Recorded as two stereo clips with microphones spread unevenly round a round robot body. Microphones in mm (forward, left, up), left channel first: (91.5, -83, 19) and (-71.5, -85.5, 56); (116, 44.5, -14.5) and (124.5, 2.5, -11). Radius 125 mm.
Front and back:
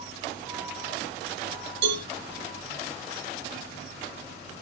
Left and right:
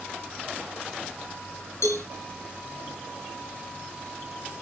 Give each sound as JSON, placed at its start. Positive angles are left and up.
{"t": 1.8, "sound": "a cowbell", "azimuth_deg": 140, "distance_m": 2.5}